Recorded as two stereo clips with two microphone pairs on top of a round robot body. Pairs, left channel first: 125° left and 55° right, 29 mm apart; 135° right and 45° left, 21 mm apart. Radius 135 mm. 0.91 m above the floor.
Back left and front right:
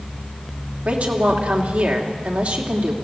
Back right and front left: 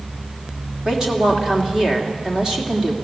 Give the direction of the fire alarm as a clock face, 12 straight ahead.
I don't hear a fire alarm.